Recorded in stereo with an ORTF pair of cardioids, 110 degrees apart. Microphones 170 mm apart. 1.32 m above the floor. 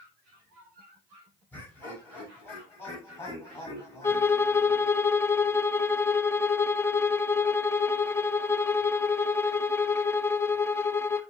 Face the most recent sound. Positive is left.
turn(degrees=15)